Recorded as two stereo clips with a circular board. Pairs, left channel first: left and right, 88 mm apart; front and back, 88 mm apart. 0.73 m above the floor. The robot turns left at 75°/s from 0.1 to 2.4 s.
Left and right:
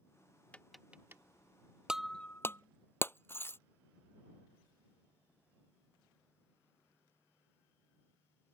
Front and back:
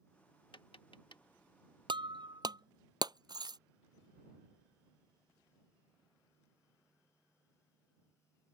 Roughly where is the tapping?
Ahead.